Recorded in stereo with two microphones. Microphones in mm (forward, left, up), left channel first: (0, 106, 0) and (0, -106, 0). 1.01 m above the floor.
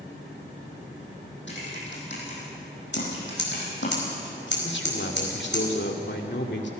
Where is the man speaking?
65° left (ahead or behind), 2 m.